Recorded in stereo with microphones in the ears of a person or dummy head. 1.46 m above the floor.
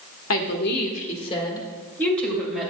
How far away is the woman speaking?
About 1.6 m.